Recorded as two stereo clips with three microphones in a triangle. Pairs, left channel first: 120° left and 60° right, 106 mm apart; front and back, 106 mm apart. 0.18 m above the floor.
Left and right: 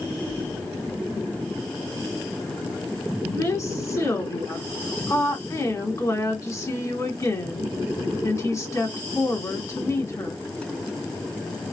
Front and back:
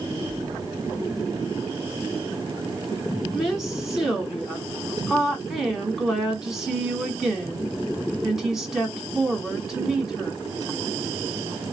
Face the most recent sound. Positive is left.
turn(degrees=95)